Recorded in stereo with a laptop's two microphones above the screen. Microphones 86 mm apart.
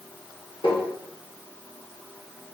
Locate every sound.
0.6 s tapping: 80° left, 1.5 m